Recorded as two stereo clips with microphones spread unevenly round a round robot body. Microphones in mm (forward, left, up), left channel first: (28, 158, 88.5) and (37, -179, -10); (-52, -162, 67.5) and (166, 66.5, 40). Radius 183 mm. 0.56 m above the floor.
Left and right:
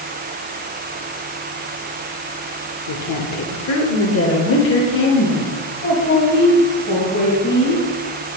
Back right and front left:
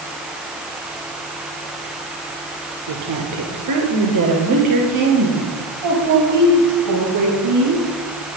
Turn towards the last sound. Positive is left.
turn(degrees=25)